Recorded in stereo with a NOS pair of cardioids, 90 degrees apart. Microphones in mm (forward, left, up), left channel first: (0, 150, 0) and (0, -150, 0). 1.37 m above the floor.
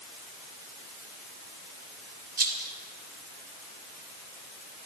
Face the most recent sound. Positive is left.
turn(degrees=-30)